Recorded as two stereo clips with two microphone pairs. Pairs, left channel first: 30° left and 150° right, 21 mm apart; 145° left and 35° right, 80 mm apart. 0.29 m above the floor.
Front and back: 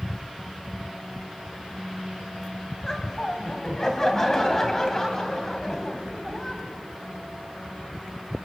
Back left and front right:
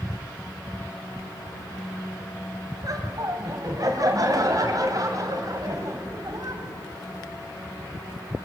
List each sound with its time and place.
2.8 s laughter: 35° right, 2 m